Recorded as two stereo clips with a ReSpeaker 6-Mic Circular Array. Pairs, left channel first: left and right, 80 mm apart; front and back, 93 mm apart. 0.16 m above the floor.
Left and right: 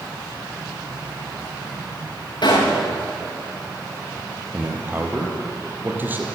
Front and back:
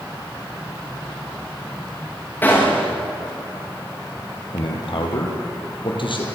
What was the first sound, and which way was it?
A gunshot, 70° left.